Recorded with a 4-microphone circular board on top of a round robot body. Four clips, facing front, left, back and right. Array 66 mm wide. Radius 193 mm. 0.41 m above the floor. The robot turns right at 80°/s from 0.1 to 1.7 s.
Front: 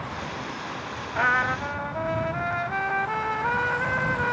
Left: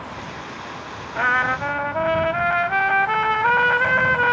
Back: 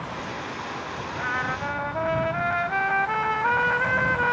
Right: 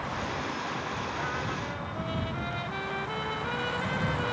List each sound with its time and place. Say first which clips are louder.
1.1 s a trumpet: left 13 dB, front 5 dB; 50° left; by 4.3 s 95° left